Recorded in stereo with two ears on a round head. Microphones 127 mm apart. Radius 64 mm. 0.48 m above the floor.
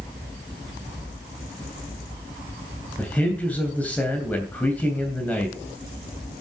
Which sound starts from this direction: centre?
A man speaking, at 3.0 s.